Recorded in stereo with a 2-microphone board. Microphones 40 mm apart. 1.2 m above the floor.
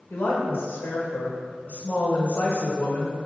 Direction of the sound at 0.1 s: 60° left (ahead or behind).